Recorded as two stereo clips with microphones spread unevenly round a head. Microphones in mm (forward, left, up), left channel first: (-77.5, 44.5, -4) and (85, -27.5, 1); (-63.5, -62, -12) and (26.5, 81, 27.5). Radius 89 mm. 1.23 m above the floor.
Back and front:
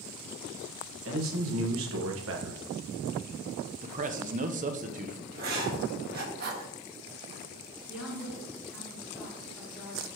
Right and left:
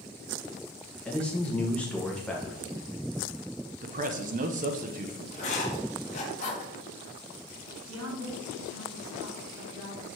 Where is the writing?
70° right, 1.3 m.